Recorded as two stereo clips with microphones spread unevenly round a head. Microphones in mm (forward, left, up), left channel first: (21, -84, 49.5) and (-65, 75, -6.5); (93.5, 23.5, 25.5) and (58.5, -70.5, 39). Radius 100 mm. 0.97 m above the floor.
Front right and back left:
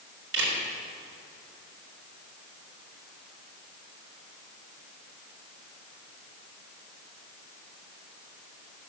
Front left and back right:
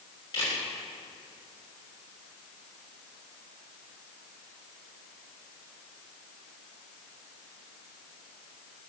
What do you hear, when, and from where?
0.3 s a camera shutter: 135° left, 3.5 m